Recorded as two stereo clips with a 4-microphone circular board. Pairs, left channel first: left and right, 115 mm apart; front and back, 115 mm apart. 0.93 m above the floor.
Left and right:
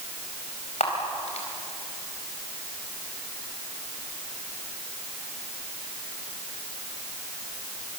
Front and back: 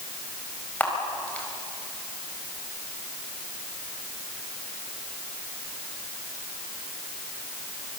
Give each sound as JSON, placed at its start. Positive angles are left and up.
{"t": 0.8, "sound": "a camera shutter", "azimuth_deg": 75, "distance_m": 4.5}